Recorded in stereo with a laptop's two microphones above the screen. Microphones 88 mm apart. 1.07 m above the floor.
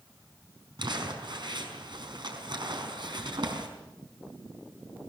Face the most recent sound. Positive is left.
turn(degrees=-60)  # may be behind; listen again after turning